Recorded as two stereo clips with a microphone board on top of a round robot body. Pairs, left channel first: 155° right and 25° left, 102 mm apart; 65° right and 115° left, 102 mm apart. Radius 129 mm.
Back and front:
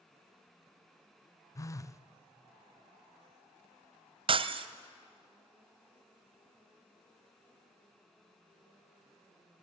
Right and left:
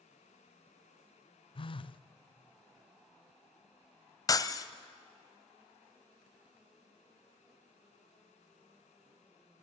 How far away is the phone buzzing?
About 0.6 m.